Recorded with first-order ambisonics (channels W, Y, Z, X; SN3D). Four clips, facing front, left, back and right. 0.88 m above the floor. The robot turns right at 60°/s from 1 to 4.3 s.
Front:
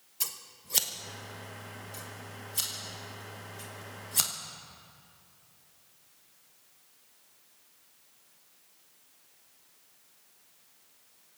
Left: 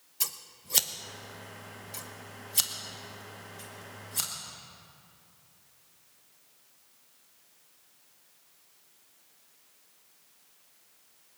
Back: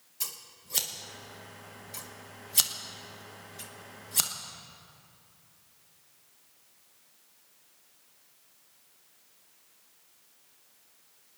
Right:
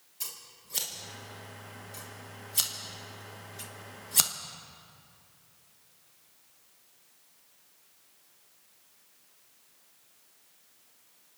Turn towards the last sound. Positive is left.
turn(degrees=-90)